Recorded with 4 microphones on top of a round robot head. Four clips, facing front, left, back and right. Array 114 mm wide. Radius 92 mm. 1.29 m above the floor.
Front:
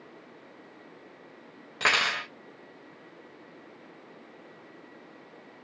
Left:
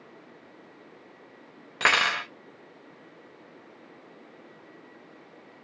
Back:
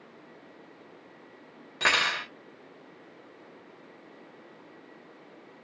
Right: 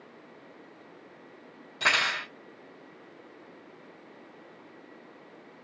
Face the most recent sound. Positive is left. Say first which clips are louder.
# left 4 dB, even
turn(degrees=95)